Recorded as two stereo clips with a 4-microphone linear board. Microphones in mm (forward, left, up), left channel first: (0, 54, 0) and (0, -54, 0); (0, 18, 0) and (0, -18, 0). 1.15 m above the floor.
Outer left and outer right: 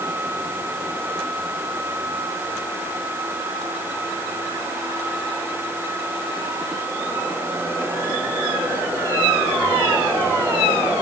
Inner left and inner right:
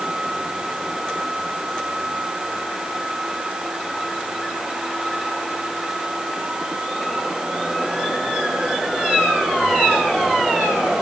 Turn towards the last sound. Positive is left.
No sound to turn to.